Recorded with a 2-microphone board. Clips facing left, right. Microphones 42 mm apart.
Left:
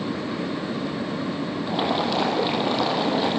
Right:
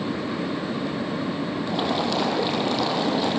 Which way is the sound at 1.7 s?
10° left (ahead or behind).